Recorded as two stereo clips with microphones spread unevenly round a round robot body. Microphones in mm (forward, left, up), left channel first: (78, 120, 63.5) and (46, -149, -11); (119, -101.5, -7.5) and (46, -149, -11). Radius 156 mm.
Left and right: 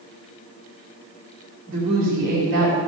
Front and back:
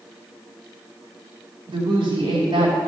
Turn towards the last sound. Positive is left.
turn(degrees=-155)